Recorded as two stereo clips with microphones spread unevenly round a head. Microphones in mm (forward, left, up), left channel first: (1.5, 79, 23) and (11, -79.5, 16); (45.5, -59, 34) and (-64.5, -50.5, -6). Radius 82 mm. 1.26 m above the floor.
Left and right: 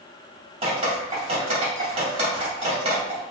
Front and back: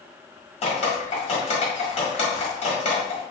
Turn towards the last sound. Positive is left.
turn(degrees=-30)